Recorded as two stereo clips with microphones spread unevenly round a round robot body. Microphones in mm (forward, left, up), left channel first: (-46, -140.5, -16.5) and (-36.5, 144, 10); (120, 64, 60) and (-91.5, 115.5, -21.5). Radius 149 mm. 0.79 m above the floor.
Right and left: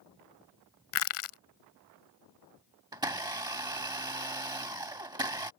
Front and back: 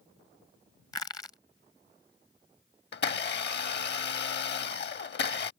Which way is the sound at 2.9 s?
15° left.